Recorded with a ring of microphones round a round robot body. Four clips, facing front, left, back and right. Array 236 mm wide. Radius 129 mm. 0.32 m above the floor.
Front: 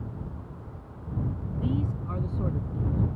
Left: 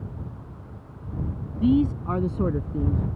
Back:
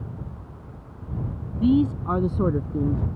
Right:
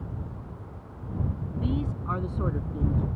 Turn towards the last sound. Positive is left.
turn(degrees=160)